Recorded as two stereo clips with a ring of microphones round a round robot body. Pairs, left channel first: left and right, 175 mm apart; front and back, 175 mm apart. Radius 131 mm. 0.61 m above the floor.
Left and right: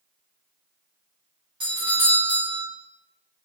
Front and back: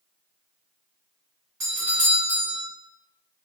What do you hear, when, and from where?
1.6 s a doorbell: 125° right, 1.6 m